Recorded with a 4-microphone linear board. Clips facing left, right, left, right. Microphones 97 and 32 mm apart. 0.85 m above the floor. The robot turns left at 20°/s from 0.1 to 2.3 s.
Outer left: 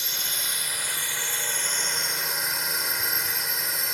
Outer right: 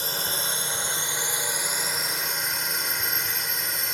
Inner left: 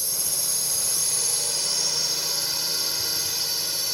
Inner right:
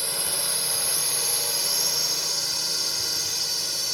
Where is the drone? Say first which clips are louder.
Outer right 5 dB, inner right 2 dB; 135° right; by 3.9 s straight behind.